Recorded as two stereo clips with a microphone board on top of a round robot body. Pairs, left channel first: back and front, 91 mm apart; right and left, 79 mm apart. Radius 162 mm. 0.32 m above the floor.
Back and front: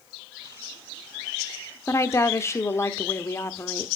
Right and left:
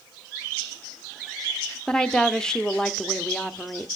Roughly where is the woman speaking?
Behind.